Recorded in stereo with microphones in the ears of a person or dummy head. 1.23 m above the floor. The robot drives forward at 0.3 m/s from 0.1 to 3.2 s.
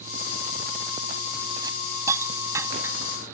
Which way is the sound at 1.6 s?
25° right (ahead or behind).